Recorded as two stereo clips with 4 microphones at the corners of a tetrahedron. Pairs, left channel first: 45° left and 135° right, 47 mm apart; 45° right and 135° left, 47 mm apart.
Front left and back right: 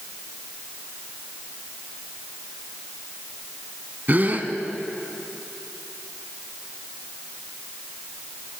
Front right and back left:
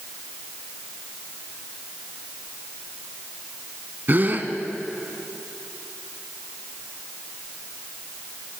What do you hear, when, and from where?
4.1 s a gasp: straight behind, 1.3 m